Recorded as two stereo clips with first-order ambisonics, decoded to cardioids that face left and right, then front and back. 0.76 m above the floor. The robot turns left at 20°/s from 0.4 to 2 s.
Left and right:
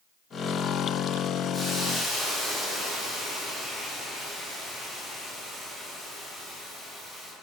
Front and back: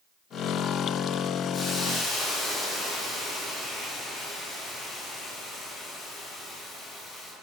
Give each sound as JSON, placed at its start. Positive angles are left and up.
{"t": 1.5, "sound": "a hiss", "azimuth_deg": 35, "distance_m": 1.0}